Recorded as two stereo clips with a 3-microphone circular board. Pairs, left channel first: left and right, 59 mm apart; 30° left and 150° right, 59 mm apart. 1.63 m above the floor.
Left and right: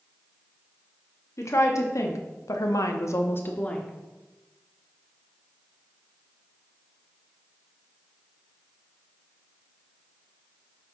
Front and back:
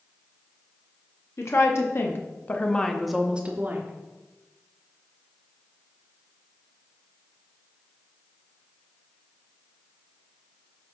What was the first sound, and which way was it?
A woman speaking, 60° left.